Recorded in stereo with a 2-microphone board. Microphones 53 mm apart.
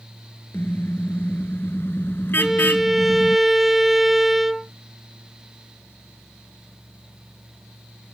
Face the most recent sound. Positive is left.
turn(degrees=-5)  # may be behind; listen again after turning